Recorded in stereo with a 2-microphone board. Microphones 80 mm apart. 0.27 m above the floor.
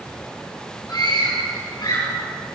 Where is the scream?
55° left (ahead or behind), 5.5 m.